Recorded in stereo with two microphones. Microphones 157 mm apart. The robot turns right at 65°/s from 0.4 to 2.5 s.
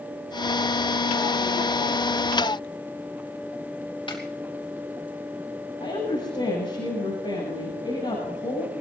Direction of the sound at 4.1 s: 30° left (ahead or behind).